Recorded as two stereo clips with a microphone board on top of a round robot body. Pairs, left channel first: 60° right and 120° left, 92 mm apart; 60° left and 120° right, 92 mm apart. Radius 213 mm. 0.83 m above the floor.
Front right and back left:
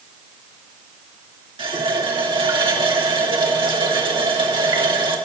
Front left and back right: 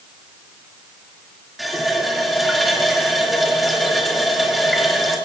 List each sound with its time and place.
1.6 s a running tap: 150° left, 2.0 m